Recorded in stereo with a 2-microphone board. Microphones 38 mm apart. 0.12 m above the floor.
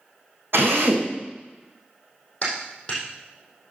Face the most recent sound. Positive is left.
turn(degrees=35)  # may be behind; listen again after turning